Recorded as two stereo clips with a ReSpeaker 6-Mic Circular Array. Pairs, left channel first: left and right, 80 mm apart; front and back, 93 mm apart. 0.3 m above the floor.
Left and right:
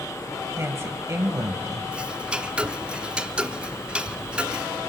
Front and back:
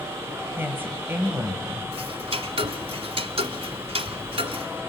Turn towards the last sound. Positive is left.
turn(degrees=-165)